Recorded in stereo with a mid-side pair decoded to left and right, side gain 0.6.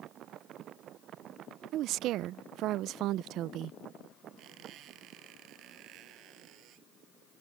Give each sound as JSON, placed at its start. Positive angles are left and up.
{"t": 1.7, "sound": "a woman speaking", "azimuth_deg": -60}
{"t": 4.4, "sound": "a squeak", "azimuth_deg": -60}